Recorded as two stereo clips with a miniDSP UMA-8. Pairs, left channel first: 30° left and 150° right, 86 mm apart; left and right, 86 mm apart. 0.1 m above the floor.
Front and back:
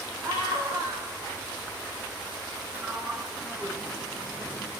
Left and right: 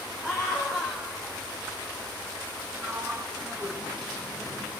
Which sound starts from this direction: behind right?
A sliding door, at 2.7 s.